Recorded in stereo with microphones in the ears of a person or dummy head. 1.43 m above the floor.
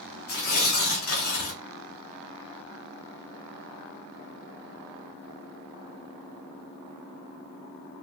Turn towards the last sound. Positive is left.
turn(degrees=55)  # may be behind; listen again after turning